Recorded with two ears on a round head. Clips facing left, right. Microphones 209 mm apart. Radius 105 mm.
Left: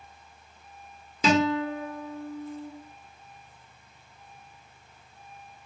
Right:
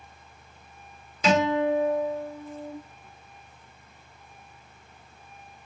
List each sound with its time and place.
1.2 s a guitar: 75° left (ahead or behind), 1.1 m